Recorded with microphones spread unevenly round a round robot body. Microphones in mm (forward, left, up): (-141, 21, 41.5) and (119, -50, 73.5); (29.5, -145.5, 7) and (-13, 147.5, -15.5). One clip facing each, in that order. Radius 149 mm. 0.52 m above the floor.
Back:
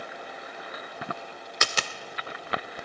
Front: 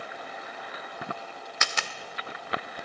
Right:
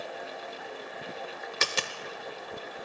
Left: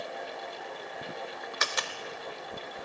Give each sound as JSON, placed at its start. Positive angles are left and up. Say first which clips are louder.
{"t": 1.6, "sound": "a dropped coin", "louder": "back 5 dB, right 4 dB", "azimuth_deg": -145, "distance_m": 0.7}